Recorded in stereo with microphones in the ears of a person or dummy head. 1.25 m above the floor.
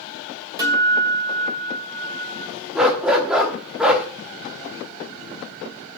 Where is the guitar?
20° right (ahead or behind), 2.5 m.